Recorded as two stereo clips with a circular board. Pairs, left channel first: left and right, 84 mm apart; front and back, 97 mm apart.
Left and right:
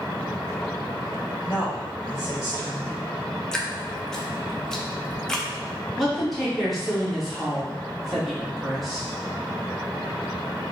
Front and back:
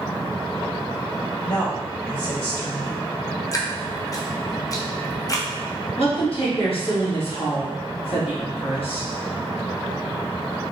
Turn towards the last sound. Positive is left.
turn(degrees=0)